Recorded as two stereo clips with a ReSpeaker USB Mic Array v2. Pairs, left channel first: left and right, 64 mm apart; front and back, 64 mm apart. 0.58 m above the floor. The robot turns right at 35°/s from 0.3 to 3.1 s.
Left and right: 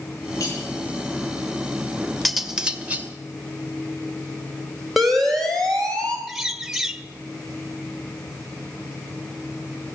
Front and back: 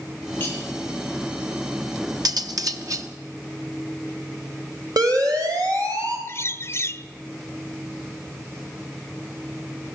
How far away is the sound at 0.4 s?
About 10 m.